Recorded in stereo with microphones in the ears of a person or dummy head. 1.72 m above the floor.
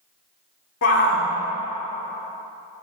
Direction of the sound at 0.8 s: 60° left (ahead or behind).